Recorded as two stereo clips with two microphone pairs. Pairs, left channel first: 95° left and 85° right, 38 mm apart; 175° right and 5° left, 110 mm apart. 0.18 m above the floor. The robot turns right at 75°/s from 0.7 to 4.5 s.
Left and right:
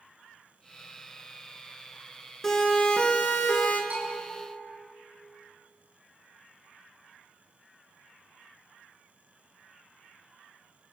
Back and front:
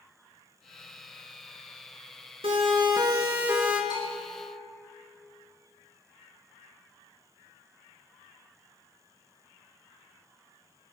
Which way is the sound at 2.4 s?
15° left.